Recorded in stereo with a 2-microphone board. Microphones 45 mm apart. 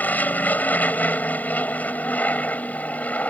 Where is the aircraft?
40° left (ahead or behind); by 3.3 s 35° left (ahead or behind).